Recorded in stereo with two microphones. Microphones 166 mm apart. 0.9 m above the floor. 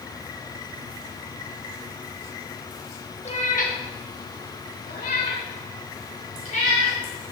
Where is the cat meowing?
40° left (ahead or behind), 0.9 m; by 7.0 s 50° left (ahead or behind), 2.5 m.